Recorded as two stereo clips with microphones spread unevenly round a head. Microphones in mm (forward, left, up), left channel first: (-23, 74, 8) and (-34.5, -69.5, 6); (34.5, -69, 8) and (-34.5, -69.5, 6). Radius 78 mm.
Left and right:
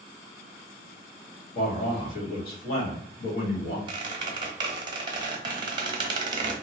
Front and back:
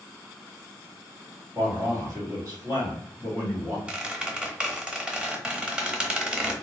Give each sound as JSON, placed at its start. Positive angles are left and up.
{"t": 1.6, "sound": "a man speaking", "azimuth_deg": 105, "distance_m": 1.6}
{"t": 3.9, "sound": "a squeak", "azimuth_deg": -110, "distance_m": 0.7}